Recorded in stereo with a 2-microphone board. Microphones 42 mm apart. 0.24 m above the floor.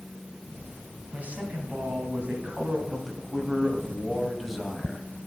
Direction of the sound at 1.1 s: 35° right (ahead or behind).